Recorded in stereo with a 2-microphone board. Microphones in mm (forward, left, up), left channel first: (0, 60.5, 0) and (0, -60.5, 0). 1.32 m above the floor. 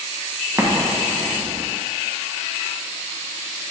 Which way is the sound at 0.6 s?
20° right (ahead or behind).